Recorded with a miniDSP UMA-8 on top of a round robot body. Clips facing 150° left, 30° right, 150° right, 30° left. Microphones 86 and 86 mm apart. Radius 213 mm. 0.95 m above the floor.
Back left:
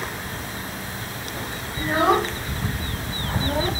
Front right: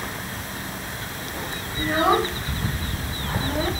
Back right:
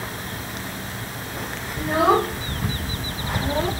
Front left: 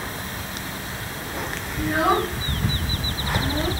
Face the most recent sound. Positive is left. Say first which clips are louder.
# back left 1 dB, back right 2 dB
turn(degrees=-150)